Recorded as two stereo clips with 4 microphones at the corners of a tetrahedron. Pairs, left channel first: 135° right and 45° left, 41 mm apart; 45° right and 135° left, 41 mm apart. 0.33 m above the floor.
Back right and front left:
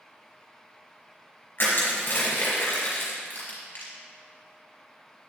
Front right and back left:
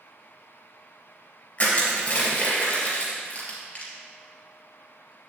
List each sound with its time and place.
1.6 s crushing: 100° right, 3 m